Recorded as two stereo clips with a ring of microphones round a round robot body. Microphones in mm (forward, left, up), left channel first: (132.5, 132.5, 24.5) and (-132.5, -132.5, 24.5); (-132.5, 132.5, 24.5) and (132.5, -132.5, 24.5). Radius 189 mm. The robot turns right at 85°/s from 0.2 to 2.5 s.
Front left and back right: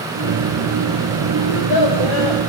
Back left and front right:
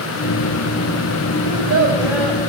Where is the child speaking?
15° right, 5 m; by 2.4 s 65° left, 5 m.